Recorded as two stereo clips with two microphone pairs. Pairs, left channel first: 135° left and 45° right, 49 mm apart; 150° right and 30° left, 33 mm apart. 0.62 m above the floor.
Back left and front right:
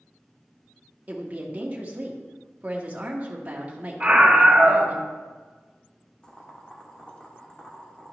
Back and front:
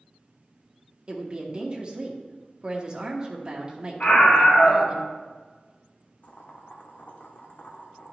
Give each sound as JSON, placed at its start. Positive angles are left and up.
{"t": 1.1, "sound": "a woman speaking", "azimuth_deg": -10, "distance_m": 1.0}
{"t": 4.0, "sound": "a scream", "azimuth_deg": -115, "distance_m": 2.5}
{"t": 6.2, "sound": "boiling", "azimuth_deg": -160, "distance_m": 1.1}